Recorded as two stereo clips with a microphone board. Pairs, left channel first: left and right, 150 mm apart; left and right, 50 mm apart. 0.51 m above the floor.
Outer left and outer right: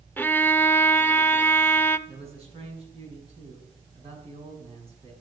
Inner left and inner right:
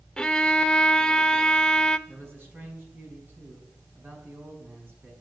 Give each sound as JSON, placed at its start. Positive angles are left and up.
{"t": 0.2, "sound": "a violin", "side_deg": 15, "distance_m": 0.7}
{"t": 2.1, "sound": "a man speaking", "side_deg": -40, "distance_m": 5.5}